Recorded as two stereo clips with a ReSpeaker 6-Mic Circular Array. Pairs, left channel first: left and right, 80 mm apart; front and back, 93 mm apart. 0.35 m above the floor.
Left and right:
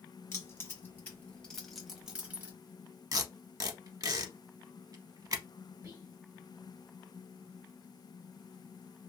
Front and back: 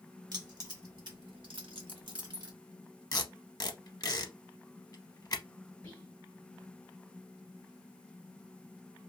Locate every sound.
0.3 s keys jangling: 140° left, 1.5 m; by 2.5 s 150° right, 1.0 m
3.1 s tape being pulled: 45° right, 0.7 m
5.8 s whispering: 45° right, 1.1 m